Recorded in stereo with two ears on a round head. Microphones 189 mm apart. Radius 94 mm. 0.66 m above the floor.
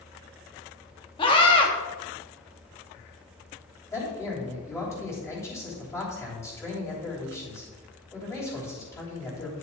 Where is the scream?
25° left (ahead or behind), 1.1 m.